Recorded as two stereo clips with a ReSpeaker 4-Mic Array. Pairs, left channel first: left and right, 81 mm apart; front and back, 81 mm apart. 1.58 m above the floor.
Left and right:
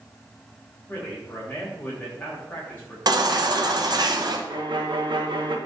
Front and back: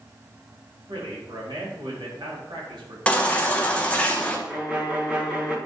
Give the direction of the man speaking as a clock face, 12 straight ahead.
7 o'clock.